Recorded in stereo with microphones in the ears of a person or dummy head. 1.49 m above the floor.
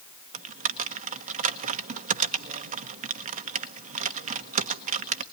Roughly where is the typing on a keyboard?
Right.